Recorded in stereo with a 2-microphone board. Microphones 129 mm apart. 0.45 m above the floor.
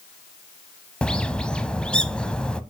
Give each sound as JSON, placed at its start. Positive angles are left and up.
{"t": 1.0, "sound": "a bird", "side_deg": 10, "distance_m": 0.5}